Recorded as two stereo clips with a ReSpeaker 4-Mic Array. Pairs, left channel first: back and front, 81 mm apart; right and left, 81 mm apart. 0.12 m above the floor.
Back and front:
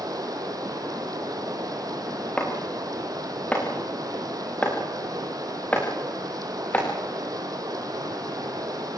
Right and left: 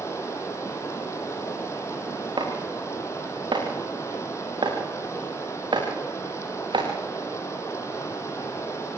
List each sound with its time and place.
0.0 s running water: 35° right, 3.5 m
2.4 s chopping: 110° left, 5.5 m